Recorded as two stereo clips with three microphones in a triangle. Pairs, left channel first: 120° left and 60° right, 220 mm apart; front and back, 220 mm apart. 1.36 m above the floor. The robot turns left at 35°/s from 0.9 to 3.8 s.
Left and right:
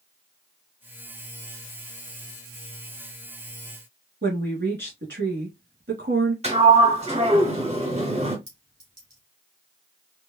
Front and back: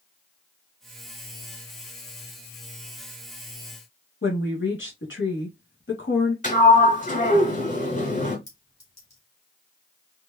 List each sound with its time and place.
4.2 s a woman speaking: 30° right, 2.5 m
6.4 s a sliding door: 20° right, 1.4 m
8.5 s a clink: 40° right, 2.5 m